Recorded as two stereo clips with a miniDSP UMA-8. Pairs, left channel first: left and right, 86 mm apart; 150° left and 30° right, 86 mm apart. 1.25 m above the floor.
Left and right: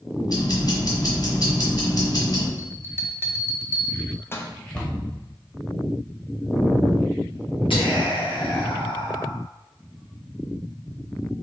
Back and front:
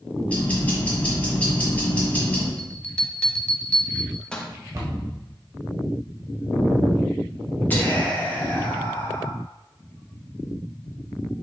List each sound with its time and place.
0.3 s ticking: 80° left, 1.6 m
2.6 s a bell: 80° left, 0.5 m
4.7 s a cupboard door: 20° left, 1.1 m
7.7 s whispering: 80° left, 1.5 m